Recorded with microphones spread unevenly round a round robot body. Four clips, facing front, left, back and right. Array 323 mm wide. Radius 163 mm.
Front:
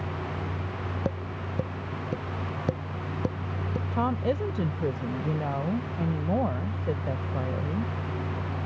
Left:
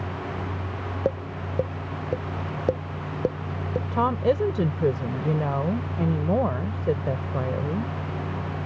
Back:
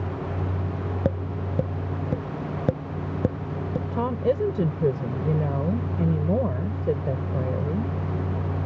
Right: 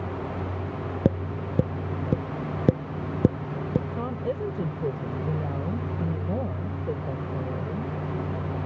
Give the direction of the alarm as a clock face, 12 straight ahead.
I don't hear an alarm.